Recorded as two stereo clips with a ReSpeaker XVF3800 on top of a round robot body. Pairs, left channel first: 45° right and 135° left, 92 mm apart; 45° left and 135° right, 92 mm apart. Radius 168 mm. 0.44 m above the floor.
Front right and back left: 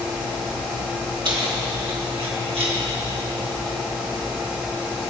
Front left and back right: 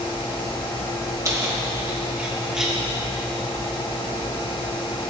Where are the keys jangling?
170° left, 2 m; by 2.8 s 140° left, 2.5 m.